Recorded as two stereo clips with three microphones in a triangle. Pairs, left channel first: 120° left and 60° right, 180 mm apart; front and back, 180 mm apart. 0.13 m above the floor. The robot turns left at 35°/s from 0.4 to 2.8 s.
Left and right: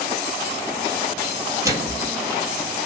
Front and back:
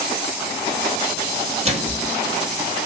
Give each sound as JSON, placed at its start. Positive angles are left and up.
{"t": 1.6, "sound": "a microwave", "azimuth_deg": -130, "distance_m": 2.0}